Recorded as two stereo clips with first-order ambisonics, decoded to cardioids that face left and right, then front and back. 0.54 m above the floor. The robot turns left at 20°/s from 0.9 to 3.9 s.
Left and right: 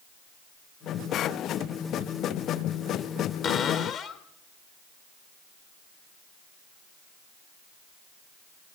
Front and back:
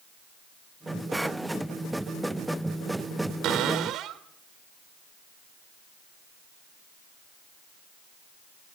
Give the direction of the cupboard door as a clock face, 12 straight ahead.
7 o'clock.